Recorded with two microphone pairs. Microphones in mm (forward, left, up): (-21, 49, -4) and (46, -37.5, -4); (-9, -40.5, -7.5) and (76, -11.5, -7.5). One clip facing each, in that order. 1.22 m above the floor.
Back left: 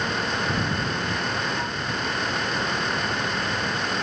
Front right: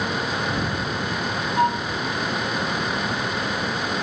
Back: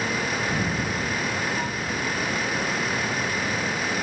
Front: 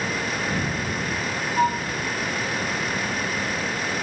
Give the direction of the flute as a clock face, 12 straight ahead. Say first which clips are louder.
Front right 9 dB, front 7 dB; 1 o'clock.